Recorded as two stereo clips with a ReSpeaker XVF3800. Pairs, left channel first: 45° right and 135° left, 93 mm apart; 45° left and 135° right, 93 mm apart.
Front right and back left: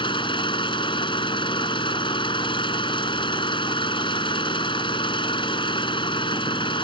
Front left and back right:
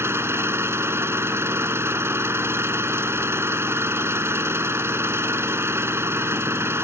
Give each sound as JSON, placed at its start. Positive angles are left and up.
{"t": 0.0, "sound": "an engine running", "azimuth_deg": -70}